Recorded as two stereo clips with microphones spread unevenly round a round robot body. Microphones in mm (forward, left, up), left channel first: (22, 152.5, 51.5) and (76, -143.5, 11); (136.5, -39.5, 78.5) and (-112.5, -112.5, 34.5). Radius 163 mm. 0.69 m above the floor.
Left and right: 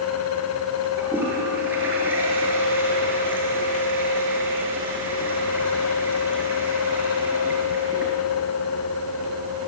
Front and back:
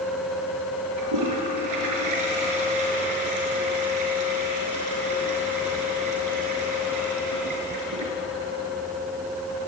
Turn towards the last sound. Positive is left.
turn(degrees=-165)